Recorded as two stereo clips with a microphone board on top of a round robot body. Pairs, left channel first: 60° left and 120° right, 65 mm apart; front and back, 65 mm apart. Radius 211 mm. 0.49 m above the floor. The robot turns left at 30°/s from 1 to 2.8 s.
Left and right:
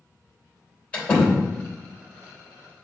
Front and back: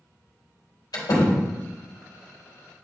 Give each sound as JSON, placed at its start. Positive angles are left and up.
{"t": 0.9, "sound": "a door slam", "azimuth_deg": -10, "distance_m": 3.5}